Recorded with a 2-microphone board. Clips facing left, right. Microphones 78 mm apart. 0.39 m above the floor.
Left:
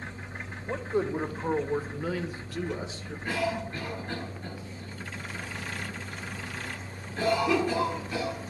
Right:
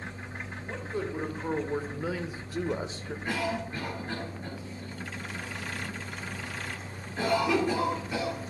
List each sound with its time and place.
0.7 s a man speaking: 35° left (ahead or behind), 1.3 m; by 3.1 s 45° right (ahead or behind), 1.1 m
3.2 s a cough: 15° right (ahead or behind), 6 m